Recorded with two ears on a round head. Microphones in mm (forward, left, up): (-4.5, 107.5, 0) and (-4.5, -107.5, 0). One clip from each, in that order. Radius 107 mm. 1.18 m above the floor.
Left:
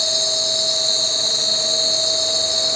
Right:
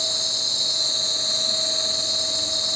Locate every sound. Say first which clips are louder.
0.0 s an insect: left 4 dB; 80° left, 5.5 m